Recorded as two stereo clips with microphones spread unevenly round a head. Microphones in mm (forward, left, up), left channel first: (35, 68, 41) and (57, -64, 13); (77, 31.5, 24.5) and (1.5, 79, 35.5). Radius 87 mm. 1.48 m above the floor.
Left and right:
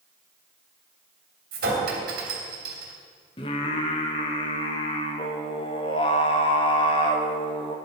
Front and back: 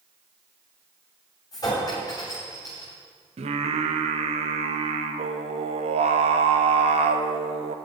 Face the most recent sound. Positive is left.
turn(degrees=160)